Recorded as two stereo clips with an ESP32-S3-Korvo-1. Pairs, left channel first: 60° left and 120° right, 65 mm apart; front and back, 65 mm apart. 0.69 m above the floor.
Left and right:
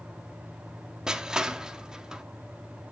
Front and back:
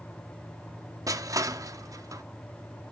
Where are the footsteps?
I don't hear footsteps.